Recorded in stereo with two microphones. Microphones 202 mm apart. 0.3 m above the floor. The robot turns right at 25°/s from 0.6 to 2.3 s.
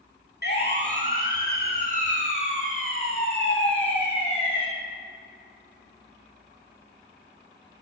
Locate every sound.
0.4 s a siren: 60° left (ahead or behind), 3.5 m; by 4.7 s 30° left (ahead or behind), 7 m